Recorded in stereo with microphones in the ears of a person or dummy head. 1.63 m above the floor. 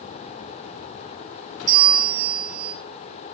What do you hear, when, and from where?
1.7 s a bell: 15° right (ahead or behind), 7 m